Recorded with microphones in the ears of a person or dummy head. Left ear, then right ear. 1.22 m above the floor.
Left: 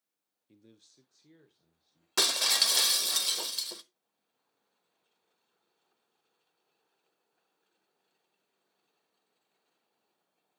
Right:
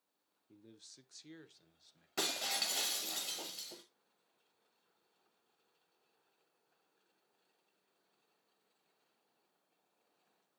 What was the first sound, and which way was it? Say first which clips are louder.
A man speaking: right 3 dB; 25° left (ahead or behind).